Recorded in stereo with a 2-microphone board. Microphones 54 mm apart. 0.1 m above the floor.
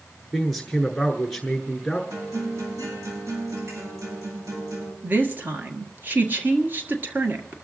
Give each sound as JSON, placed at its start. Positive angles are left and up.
{"t": 0.3, "sound": "a man speaking", "side_deg": 5, "distance_m": 1.1}
{"t": 2.1, "sound": "a guitar", "side_deg": -75, "distance_m": 9.5}
{"t": 5.0, "sound": "a woman speaking", "side_deg": -40, "distance_m": 1.5}